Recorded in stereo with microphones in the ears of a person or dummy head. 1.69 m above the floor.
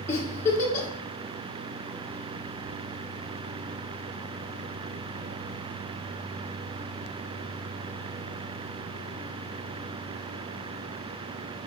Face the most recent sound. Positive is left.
turn(degrees=15)  # may be behind; listen again after turning